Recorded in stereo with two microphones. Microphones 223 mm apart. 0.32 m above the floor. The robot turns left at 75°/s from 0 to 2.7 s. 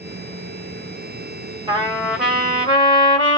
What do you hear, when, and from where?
1.7 s a trumpet: 140° right, 1.1 m; by 3.4 s 145° left, 1.1 m